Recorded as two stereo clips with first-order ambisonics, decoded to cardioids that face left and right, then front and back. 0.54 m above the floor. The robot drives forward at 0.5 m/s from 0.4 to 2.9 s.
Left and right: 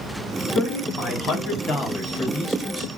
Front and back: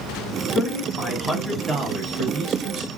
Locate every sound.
0.6 s a man speaking: 50° left, 1.0 m; by 2.9 s 145° left, 1.2 m